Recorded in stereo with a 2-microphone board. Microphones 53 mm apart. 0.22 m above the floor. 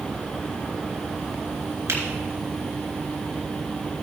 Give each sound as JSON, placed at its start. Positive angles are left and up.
{"t": 1.9, "sound": "a finger snap", "side_deg": -55, "distance_m": 3.0}